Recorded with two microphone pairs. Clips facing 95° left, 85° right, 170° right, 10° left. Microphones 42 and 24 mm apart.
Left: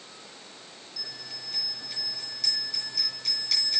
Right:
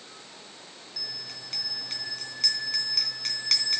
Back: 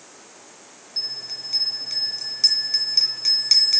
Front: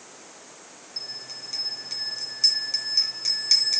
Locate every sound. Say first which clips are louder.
1.0 s a bell: right 1 dB, back 7 dB; 100° right, 3 m